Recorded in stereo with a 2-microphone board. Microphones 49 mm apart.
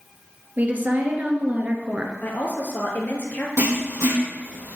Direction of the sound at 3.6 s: 75° right (ahead or behind).